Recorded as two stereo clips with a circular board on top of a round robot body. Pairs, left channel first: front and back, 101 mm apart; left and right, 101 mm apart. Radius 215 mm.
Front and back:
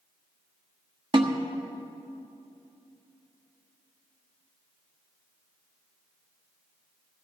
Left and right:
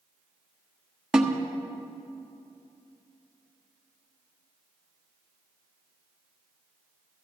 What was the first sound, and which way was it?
A snare drum, 175° right.